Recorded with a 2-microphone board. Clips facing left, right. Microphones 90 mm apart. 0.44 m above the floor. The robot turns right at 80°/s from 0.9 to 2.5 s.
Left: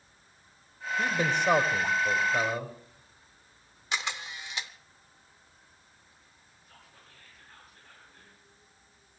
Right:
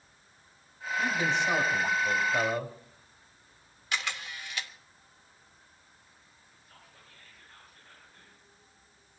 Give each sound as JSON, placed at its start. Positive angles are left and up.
{"t": 1.0, "sound": "a man speaking", "azimuth_deg": 55, "distance_m": 1.9}
{"t": 3.9, "sound": "a camera shutter", "side_deg": 20, "distance_m": 1.0}
{"t": 6.7, "sound": "whispering", "side_deg": 55, "distance_m": 8.0}